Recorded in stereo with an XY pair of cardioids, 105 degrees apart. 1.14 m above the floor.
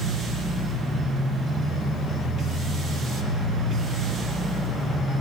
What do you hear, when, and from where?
0.0 s a machine running: 55° right, 1.0 m